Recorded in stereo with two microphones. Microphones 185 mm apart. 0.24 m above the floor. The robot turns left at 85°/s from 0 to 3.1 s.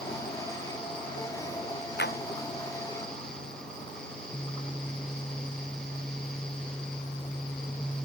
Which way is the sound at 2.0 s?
65° left (ahead or behind).